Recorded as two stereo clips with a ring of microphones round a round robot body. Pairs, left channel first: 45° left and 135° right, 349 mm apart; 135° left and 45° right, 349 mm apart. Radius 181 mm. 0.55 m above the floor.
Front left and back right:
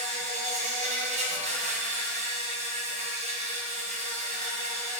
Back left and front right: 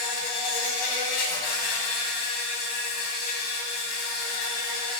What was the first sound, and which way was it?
An insect, 155° left.